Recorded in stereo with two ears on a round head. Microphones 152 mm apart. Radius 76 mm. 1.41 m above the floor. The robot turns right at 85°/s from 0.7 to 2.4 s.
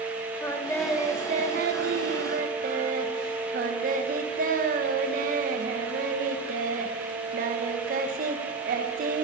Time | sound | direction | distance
0.4 | singing | 165° left | 1.2 m